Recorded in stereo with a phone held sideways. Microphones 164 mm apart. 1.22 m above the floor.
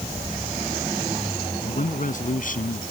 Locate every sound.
1.6 s a man speaking: 50° left (ahead or behind); by 2.8 s 55° left (ahead or behind)